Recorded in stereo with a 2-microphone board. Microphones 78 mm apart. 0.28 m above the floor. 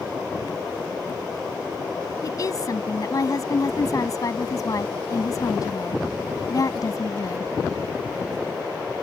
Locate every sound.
2.2 s a woman speaking: 50° left (ahead or behind)